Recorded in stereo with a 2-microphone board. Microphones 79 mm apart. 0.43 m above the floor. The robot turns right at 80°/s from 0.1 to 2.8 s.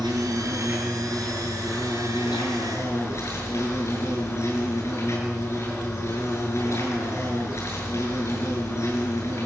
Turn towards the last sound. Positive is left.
turn(degrees=140)